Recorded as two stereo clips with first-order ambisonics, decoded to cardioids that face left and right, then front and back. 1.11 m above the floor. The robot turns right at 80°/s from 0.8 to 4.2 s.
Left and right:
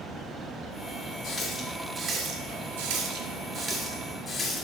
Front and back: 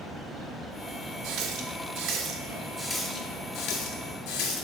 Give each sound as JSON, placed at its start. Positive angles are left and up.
{"t": 1.2, "sound": "a running tap", "azimuth_deg": 140, "distance_m": 1.5}